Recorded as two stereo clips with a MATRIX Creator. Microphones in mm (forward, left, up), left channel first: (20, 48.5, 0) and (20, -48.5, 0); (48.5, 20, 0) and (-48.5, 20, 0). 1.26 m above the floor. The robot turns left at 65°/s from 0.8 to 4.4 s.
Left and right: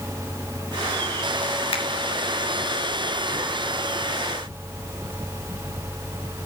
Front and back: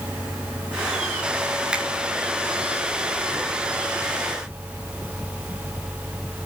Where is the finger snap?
100° left, 2.5 m; by 1.8 s 90° left, 2.5 m.